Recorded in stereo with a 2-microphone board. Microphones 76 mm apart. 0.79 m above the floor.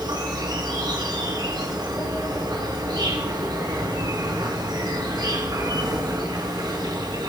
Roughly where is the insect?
Right.